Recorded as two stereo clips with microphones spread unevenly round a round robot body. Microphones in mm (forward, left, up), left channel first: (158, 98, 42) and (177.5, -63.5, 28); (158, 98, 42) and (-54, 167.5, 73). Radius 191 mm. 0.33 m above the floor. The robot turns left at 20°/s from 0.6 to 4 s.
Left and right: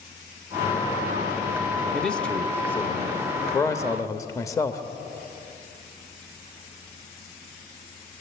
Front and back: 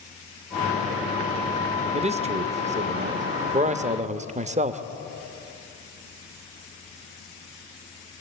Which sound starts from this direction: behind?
A man speaking, at 1.9 s.